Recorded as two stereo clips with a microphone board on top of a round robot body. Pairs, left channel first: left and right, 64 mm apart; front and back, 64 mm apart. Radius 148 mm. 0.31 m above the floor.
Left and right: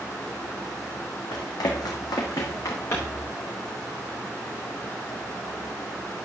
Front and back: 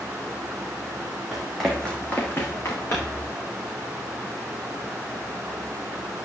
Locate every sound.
1.3 s running footsteps: 95° left, 1.7 m; by 3.2 s 45° left, 3 m